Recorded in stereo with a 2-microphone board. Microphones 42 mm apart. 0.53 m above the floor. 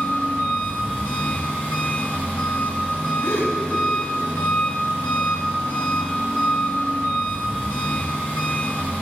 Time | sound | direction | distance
0.0 | an engine running | 45° left (ahead or behind) | 3.5 m
3.2 | a gasp | 70° left (ahead or behind) | 2 m